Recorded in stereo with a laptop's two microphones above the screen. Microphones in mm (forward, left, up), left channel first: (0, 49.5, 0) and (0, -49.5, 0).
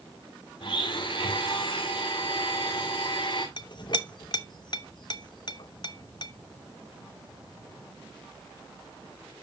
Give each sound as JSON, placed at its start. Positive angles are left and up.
{"t": 0.6, "sound": "a blender", "side_deg": 60, "distance_m": 2.0}
{"t": 3.6, "sound": "a clink", "side_deg": 50, "distance_m": 0.8}